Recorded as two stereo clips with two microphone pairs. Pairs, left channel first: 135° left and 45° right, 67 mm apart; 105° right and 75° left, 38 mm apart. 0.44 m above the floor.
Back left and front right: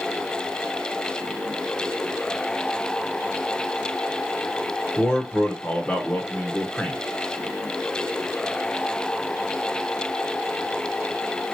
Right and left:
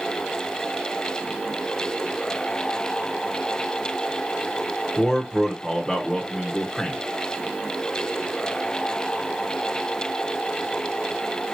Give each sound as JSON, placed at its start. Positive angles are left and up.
{"t": 5.0, "sound": "a man speaking", "azimuth_deg": 180, "distance_m": 1.0}